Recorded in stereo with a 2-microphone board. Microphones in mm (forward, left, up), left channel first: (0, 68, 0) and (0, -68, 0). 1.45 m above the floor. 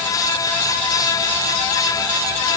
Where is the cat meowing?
I don't hear a cat meowing.